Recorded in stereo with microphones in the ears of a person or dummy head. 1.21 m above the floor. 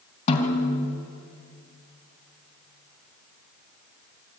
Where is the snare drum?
40° left (ahead or behind), 3 m.